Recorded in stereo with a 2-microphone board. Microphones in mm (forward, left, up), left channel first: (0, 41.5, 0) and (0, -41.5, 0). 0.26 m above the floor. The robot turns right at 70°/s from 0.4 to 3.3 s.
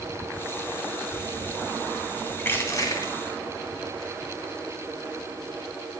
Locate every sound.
2.4 s crushing: 25° left, 2.5 m; by 3.1 s 80° left, 2.5 m